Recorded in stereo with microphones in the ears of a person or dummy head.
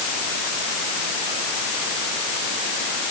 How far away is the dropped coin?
I don't hear a dropped coin.